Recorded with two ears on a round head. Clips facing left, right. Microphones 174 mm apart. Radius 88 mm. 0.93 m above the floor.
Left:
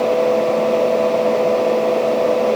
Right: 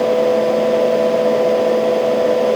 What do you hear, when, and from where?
Only background noise.